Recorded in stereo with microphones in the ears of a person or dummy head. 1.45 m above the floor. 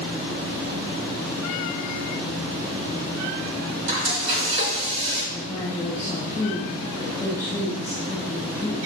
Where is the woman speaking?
15° left (ahead or behind), 2.5 m.